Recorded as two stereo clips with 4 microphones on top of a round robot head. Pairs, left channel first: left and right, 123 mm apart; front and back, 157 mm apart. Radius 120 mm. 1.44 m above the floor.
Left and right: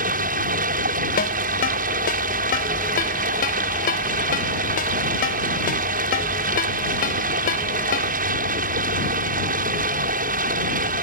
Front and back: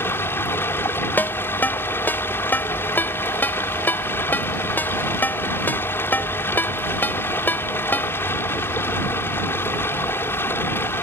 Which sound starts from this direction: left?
A ringtone, at 1.2 s.